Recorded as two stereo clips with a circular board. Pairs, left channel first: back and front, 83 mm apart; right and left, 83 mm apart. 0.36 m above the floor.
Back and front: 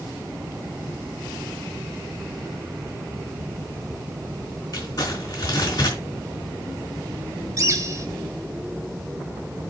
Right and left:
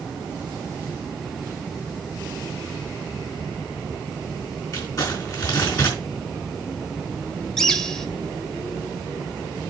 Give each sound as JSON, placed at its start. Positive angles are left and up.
{"t": 4.7, "sound": "crumpling", "azimuth_deg": -130, "distance_m": 4.5}
{"t": 7.6, "sound": "a bird", "azimuth_deg": -10, "distance_m": 1.1}